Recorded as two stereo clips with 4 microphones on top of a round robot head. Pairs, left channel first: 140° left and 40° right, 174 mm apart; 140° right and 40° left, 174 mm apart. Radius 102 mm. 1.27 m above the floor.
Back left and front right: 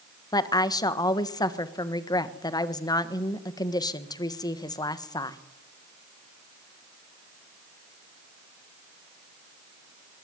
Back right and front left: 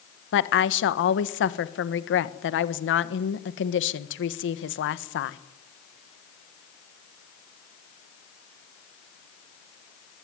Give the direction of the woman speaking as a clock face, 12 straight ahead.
5 o'clock.